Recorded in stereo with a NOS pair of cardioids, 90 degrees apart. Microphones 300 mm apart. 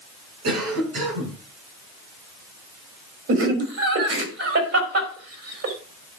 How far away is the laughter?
About 3 m.